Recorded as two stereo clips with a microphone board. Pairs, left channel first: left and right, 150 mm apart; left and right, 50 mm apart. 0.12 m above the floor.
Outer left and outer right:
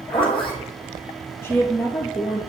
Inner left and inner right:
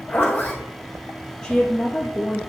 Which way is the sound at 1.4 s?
15° left (ahead or behind).